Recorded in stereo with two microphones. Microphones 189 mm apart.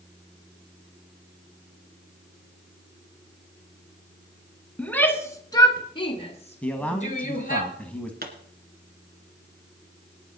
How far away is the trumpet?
I don't hear a trumpet.